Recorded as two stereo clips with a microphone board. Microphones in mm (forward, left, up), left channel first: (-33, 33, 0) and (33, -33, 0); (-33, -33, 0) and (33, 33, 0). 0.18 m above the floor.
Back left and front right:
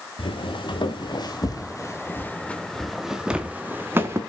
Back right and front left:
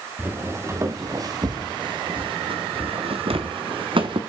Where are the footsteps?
110° left, 3 m; by 4.2 s 15° left, 2.5 m.